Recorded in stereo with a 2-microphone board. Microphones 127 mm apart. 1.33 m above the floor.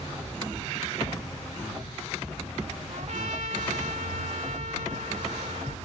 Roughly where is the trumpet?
Right.